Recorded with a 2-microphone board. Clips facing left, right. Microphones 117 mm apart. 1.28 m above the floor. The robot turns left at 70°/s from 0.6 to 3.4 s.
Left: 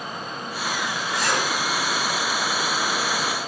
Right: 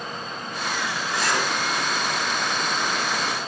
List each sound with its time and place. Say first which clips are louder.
1.1 s a zipper: even; 5° right (ahead or behind), 5 m; by 1.5 s 15° left (ahead or behind), 5 m